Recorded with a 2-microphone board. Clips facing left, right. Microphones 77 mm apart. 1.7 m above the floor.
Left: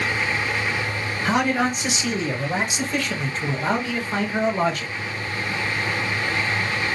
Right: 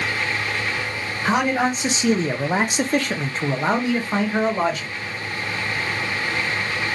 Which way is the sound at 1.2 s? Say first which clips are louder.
Right 1 dB; 25° right (ahead or behind).